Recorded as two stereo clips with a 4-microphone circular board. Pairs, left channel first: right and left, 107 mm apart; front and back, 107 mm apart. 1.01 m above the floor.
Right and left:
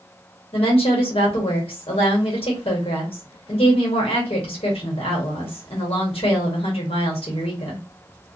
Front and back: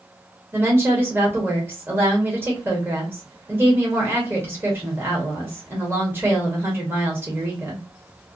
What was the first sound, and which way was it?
A woman speaking, 110° right.